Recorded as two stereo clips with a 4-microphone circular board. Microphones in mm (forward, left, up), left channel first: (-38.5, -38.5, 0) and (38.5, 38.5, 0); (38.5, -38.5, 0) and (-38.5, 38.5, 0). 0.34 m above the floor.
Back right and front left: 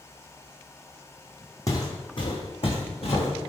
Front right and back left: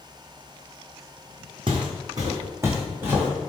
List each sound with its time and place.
1.7 s footsteps: 170° left, 0.8 m; by 3.3 s 150° right, 1.5 m